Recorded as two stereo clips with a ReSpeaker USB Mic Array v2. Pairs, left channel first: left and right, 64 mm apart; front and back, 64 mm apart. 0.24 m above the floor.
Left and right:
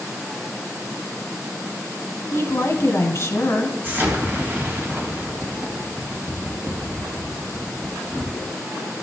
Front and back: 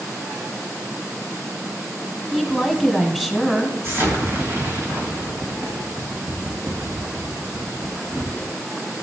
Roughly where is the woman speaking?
Left.